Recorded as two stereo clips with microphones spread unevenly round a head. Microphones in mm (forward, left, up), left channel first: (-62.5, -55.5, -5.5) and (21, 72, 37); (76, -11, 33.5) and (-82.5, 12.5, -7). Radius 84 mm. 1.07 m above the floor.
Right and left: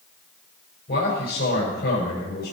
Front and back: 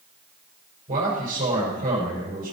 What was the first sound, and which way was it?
A man speaking, 145° right.